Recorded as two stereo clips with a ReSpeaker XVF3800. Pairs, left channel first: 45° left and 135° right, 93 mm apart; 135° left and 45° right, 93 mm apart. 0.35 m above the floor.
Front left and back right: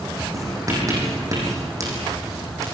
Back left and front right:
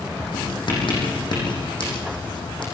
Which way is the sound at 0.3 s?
170° left.